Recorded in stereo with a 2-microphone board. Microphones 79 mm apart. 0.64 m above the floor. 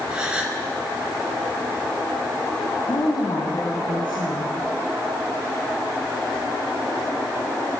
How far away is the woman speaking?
About 5.5 m.